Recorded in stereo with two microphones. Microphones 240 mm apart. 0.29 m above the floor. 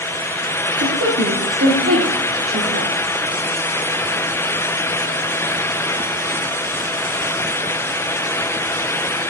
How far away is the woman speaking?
About 6.5 m.